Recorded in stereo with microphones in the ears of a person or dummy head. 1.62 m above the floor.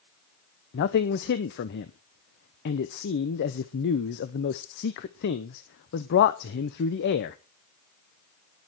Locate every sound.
0.7 s a man speaking: 55° left (ahead or behind), 0.8 m